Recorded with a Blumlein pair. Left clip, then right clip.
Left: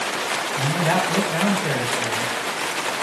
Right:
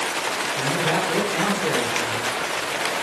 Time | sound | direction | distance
0.6 | a man speaking | 65° left | 1.3 m